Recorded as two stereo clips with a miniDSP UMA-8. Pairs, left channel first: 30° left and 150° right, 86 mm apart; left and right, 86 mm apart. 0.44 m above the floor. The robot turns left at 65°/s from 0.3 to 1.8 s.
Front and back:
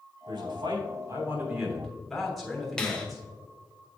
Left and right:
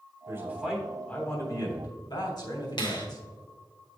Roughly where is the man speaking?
Behind right.